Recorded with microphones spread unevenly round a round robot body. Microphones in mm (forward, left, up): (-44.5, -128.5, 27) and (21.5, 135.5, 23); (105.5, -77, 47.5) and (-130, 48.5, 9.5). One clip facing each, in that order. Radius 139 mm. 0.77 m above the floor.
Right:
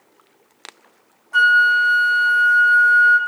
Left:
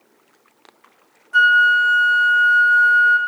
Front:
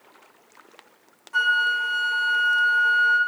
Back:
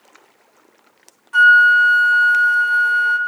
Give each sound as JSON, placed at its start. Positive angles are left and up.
{"t": 1.3, "sound": "a flute", "azimuth_deg": 175, "distance_m": 1.2}